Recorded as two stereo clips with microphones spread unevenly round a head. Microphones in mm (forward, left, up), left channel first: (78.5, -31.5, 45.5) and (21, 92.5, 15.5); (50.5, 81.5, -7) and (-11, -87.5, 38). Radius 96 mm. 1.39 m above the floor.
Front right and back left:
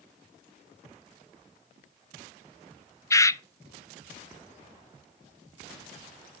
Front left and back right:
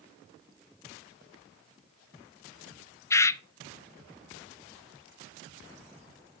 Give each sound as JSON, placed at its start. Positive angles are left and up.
{"t": 3.1, "sound": "a bird", "azimuth_deg": 10, "distance_m": 0.6}